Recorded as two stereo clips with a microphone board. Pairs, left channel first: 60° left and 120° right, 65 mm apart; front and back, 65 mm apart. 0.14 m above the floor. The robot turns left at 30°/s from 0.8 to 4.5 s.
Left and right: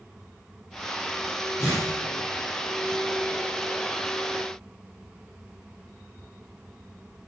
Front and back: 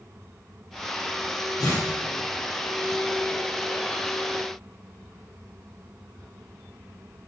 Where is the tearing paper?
15° left, 7 m; by 1.9 s 5° left, 7 m.